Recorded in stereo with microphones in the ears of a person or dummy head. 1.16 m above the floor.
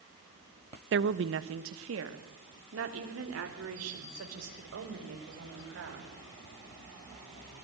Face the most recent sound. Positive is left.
turn(degrees=-80)